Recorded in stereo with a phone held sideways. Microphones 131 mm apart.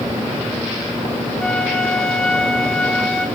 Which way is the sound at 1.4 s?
5° left (ahead or behind).